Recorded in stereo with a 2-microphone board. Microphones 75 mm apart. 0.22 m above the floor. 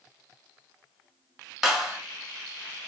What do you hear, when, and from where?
1.6 s a clap: 5° right (ahead or behind), 1.1 m